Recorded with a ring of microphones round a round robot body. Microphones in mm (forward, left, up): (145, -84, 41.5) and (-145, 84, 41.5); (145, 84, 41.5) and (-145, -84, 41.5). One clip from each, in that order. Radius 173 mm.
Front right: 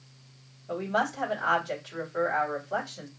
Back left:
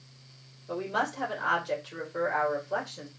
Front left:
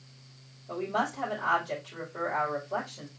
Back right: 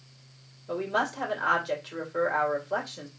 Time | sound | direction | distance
0.7 | a woman speaking | 150° right | 3 m